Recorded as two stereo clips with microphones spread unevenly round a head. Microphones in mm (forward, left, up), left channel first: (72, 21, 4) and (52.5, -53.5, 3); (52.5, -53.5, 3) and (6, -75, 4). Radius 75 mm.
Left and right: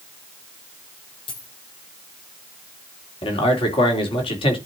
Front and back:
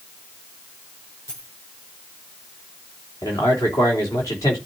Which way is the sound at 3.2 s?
80° left.